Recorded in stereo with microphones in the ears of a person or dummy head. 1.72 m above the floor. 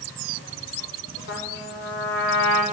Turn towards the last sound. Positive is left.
turn(degrees=70)  # may be behind; listen again after turning